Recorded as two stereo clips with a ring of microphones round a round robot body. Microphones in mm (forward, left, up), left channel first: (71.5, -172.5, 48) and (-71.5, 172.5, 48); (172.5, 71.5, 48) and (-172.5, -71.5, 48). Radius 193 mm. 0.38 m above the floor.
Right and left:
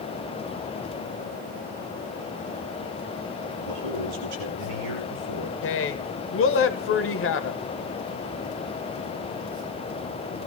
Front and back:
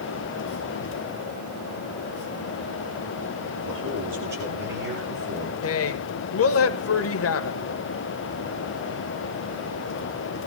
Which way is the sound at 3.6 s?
145° left.